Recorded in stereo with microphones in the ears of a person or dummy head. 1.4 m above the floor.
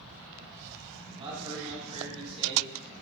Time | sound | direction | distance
1.2 | a man speaking | 30° right (ahead or behind) | 4 m